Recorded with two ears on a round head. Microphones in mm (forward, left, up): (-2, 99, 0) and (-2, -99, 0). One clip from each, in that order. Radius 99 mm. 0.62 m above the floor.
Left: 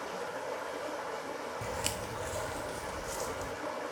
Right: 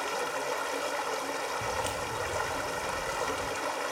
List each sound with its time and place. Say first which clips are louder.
0.0 s running water: right 6 dB; 65° right (ahead or behind), 1.5 m
1.6 s footsteps: right 4 dB; 20° left (ahead or behind), 0.6 m; by 3.5 s 40° left (ahead or behind), 2 m